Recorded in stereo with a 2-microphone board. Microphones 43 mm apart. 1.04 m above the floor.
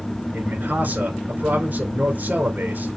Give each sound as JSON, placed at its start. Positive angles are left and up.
{"t": 0.3, "sound": "a man speaking", "side_deg": -45, "distance_m": 4.0}